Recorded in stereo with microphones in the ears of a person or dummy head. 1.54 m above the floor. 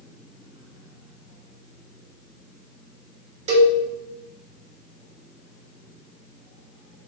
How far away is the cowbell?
About 0.8 m.